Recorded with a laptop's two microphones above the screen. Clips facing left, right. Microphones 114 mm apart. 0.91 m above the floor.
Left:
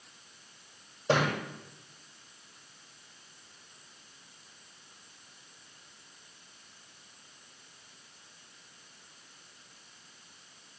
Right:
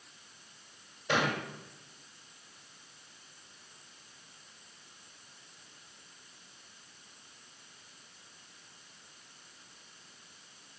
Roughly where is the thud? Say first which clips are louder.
Left 3 dB; left.